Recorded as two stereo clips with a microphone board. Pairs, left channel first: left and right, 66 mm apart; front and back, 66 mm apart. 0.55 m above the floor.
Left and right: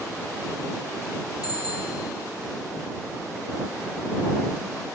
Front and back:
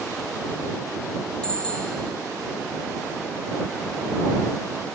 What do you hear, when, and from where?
1.4 s a bicycle bell: 75° left